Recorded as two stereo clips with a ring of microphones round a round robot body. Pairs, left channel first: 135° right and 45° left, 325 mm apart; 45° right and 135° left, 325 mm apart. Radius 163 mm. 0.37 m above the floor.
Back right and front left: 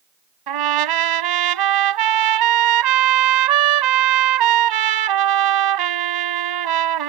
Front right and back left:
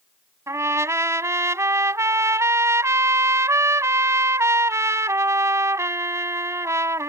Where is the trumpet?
55° left.